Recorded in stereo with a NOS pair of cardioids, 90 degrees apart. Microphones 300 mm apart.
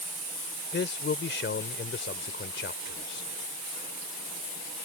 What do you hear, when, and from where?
0.7 s a man speaking: 40° left